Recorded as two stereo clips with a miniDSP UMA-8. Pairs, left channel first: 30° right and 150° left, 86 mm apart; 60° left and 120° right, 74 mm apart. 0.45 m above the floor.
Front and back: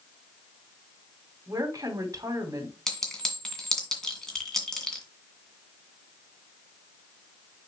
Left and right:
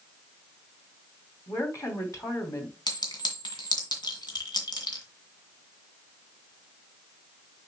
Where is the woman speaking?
100° left, 2.5 m.